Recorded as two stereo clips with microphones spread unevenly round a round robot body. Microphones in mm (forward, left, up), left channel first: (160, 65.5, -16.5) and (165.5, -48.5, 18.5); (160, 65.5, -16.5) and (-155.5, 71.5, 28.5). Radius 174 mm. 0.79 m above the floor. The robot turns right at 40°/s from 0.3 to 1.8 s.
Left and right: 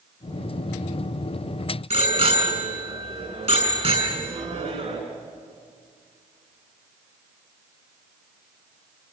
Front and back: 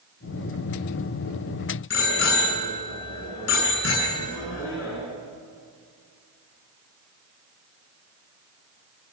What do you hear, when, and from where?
1.9 s a bicycle bell: 60° right, 7 m